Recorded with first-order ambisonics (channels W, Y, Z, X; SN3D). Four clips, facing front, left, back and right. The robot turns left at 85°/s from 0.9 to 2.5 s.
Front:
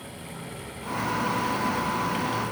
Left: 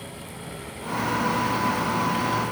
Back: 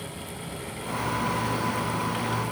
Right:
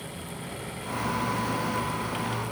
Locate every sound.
Only background noise.